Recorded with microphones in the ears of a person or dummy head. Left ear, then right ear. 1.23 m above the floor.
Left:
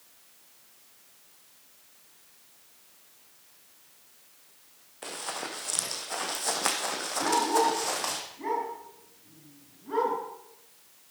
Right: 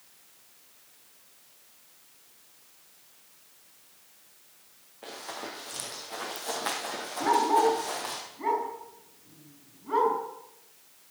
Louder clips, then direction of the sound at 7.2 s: Right 2 dB; 20° right (ahead or behind).